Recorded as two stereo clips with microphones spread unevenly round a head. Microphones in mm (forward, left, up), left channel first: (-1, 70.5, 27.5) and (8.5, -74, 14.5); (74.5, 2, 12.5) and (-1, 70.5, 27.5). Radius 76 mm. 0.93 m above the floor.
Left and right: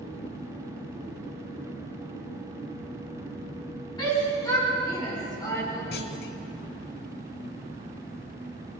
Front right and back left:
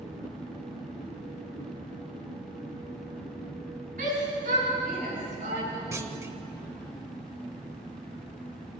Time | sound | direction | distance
4.0 | a shout | 155° left | 9.5 m
5.9 | a clunk | 80° left | 1.3 m